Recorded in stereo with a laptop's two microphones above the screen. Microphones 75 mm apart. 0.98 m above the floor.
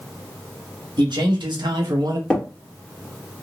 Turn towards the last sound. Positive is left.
turn(degrees=10)  # may be behind; listen again after turning